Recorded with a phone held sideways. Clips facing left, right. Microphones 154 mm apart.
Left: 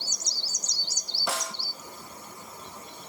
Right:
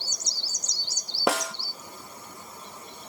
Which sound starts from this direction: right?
A snare drum, at 1.3 s.